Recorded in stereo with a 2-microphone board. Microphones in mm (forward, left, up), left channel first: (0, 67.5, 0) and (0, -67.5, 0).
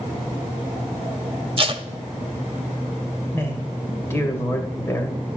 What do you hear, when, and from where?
1.6 s tape being pulled: 40° right (ahead or behind), 0.7 m
3.3 s a man speaking: 20° left (ahead or behind), 2.0 m